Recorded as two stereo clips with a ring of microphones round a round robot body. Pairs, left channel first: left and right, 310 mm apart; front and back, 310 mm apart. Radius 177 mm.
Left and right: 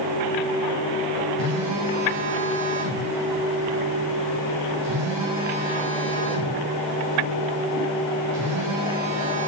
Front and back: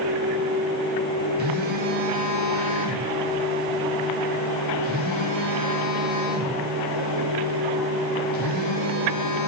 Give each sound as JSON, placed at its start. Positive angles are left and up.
{"t": 1.4, "sound": "a phone buzzing", "azimuth_deg": -125, "distance_m": 2.5}